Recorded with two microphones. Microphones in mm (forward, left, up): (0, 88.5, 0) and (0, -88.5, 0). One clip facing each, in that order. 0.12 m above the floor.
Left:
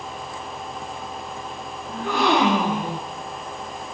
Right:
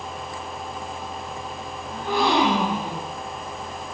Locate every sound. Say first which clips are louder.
1.9 s a gasp: left 1 dB; 80° left, 8.5 m